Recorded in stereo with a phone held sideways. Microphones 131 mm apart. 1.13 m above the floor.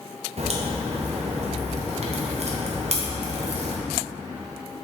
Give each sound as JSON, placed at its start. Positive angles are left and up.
{"t": 0.4, "sound": "a crack", "side_deg": -60, "distance_m": 0.9}